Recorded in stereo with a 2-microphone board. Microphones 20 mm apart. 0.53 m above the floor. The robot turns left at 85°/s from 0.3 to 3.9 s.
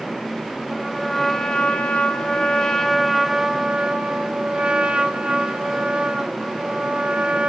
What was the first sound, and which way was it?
A trumpet, 155° right.